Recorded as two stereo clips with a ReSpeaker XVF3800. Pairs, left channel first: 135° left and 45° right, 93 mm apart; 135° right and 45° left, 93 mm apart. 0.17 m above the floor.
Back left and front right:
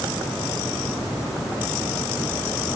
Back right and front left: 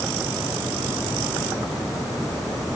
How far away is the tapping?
I don't hear tapping.